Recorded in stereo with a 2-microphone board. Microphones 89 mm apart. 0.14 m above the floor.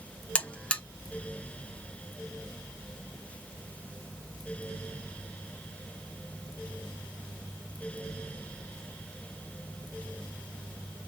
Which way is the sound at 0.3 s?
15° left (ahead or behind).